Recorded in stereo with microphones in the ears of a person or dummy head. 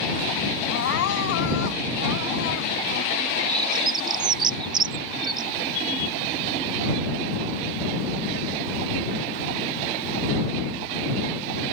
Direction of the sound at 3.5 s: 25° right (ahead or behind).